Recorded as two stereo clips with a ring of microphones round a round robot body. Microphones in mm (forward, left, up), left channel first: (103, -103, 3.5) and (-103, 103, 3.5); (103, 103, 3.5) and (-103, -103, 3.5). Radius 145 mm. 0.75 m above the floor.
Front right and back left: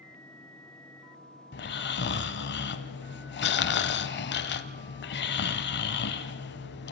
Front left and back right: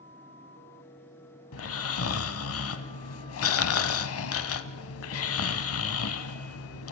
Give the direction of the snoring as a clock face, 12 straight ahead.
12 o'clock.